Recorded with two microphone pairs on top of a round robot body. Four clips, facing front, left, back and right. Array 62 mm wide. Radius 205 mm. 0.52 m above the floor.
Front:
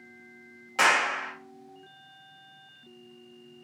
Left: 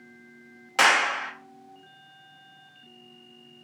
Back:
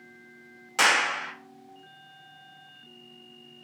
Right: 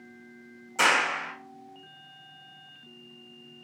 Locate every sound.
0.8 s a clap: 100° left, 1.4 m